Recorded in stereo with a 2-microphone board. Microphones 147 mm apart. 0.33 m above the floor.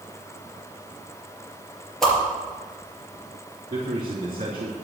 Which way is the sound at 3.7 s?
35° right (ahead or behind).